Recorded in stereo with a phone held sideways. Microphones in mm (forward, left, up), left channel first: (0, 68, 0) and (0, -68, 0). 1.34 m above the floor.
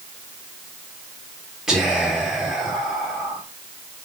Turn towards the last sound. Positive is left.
turn(degrees=0)  # may be behind; listen again after turning